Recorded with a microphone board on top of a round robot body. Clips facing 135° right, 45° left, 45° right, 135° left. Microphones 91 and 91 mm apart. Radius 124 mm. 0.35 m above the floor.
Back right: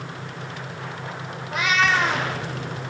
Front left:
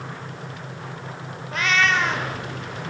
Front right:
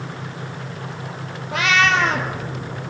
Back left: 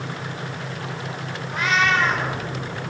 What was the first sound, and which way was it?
A cat meowing, 50° right.